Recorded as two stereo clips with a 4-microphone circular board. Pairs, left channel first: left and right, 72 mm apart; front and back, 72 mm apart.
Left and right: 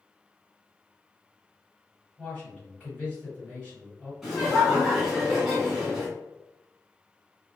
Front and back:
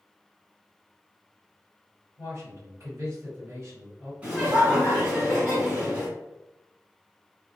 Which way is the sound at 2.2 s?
160° left.